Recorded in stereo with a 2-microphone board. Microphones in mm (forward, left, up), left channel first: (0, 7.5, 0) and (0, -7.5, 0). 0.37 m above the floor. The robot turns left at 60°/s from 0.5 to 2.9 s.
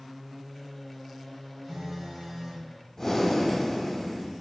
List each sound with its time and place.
1.6 s a phone buzzing: 55° right, 1.2 m; by 2.6 s 110° right, 1.2 m
3.0 s breathing: 25° left (ahead or behind), 0.7 m